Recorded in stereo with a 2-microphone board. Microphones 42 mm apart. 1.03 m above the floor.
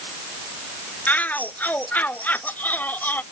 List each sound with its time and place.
1.1 s a shout: 40° left (ahead or behind); by 3.2 s 45° left (ahead or behind)